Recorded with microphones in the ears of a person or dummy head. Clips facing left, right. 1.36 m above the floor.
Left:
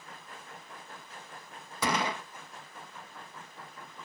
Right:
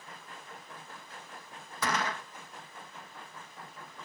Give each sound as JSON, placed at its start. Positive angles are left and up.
{"t": 1.8, "sound": "a gunshot", "side_deg": 15}